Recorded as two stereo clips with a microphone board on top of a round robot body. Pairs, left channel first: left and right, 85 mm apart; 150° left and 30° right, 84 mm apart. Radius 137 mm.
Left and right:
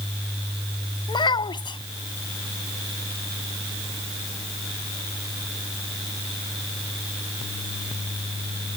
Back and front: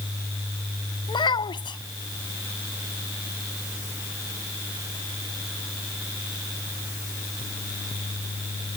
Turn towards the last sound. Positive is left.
turn(degrees=120)